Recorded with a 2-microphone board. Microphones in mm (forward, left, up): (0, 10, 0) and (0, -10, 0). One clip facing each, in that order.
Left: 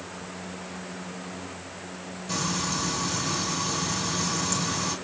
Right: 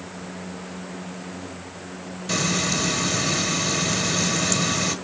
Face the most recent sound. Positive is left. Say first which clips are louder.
# right 5 dB
turn(degrees=-50)  # may be behind; listen again after turning